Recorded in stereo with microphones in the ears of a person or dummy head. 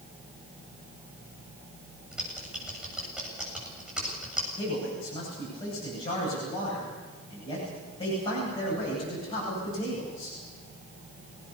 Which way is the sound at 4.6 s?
35° left (ahead or behind).